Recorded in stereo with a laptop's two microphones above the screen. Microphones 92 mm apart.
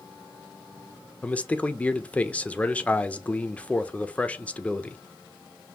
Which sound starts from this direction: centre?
A man speaking, at 1.2 s.